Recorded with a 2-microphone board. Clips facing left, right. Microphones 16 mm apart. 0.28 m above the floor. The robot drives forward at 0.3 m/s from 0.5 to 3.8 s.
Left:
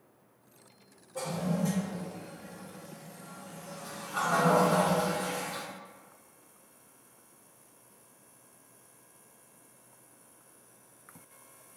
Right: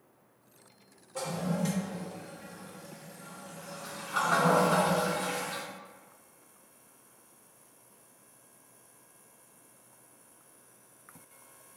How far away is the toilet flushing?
About 1.2 m.